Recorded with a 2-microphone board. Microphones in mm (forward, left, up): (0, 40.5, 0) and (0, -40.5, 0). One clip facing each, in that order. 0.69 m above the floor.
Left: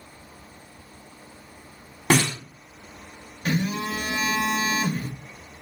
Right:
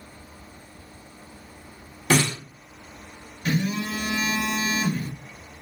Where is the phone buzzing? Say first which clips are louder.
Even; 35° left (ahead or behind), 0.8 m.